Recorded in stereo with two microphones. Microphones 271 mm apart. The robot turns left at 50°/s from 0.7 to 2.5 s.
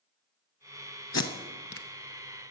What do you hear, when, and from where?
1.1 s tape being pulled: 70° left (ahead or behind), 0.7 m; by 1.9 s 50° left (ahead or behind), 0.7 m